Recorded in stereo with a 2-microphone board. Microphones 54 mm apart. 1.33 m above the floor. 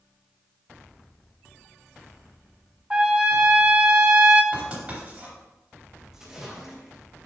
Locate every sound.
2.9 s a trumpet: 20° right (ahead or behind), 0.7 m
4.5 s writing: 25° right (ahead or behind), 3.5 m
6.1 s a splash: 10° right (ahead or behind), 1.6 m